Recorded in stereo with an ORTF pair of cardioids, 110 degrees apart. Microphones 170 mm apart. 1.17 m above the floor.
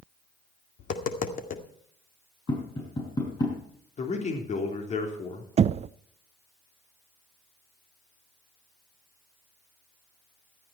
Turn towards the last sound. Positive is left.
turn(degrees=-40)